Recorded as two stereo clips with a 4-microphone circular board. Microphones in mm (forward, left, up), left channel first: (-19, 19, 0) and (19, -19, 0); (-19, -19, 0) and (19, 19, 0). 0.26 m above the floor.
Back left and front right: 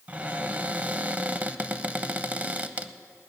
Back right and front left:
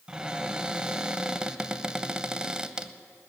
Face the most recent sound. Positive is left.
turn(degrees=-15)